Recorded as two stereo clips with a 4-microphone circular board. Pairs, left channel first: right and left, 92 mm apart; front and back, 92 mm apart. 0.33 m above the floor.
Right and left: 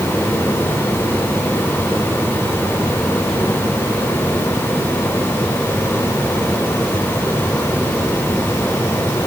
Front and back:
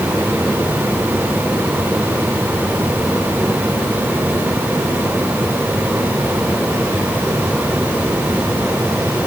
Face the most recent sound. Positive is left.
No sound to turn to.